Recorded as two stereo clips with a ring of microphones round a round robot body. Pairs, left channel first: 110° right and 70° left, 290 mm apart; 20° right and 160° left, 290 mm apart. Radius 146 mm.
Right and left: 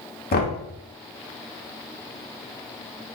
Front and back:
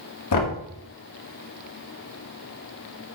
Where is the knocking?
55° right, 1.3 m.